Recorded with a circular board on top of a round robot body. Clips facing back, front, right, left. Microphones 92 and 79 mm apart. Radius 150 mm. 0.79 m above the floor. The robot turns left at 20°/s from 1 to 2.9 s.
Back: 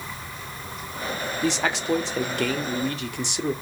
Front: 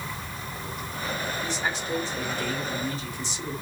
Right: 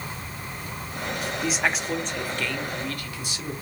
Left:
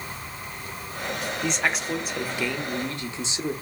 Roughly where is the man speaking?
Behind.